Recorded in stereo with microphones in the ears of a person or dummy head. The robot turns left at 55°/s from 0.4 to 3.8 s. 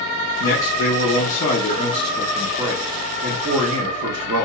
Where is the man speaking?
115° left, 0.6 m; by 4.5 s 75° right, 0.6 m.